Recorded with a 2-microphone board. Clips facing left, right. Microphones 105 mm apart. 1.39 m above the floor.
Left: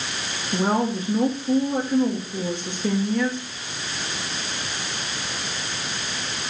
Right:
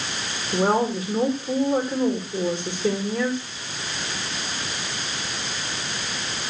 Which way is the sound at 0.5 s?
10° right (ahead or behind).